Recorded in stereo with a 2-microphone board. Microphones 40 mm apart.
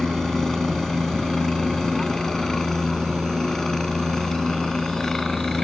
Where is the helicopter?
15° left (ahead or behind).